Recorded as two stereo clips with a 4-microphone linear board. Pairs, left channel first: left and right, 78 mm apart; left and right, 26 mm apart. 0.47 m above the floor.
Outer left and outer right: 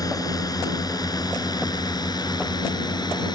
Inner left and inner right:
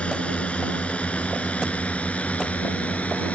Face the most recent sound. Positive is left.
turn(degrees=55)  # may be behind; listen again after turning